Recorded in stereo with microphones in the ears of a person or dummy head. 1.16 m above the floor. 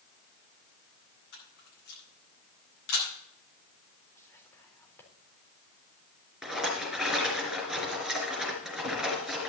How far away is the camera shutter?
About 9.5 m.